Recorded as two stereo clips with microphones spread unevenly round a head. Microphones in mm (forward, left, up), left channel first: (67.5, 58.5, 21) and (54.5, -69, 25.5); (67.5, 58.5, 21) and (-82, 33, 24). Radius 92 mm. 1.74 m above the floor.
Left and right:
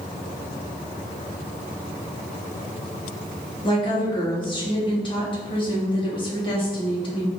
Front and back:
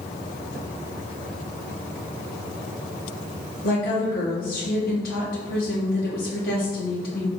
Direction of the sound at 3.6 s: 35° left.